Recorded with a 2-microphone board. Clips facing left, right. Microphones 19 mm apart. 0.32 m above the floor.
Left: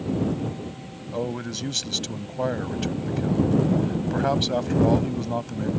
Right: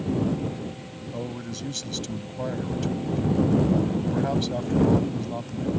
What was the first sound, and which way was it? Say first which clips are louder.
A man speaking: left 5 dB; 30° left (ahead or behind).